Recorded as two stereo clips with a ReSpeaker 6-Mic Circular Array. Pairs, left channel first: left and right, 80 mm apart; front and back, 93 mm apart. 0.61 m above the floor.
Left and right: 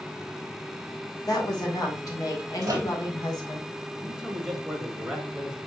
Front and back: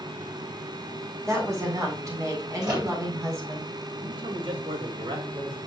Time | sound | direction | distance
1.3 | a woman speaking | 125° left | 3.5 m
2.6 | a microwave | 140° right | 3 m
4.0 | a man speaking | 175° right | 2.5 m